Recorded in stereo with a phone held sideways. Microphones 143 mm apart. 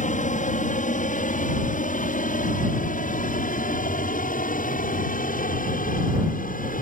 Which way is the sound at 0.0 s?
60° left (ahead or behind).